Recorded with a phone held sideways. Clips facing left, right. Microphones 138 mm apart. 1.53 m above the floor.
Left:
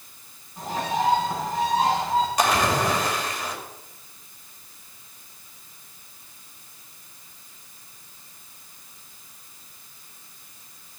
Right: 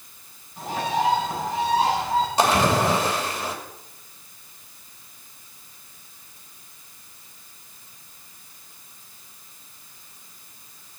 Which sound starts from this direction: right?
A splash, at 2.4 s.